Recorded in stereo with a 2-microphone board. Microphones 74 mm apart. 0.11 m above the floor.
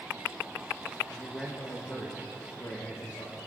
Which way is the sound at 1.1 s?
20° left (ahead or behind).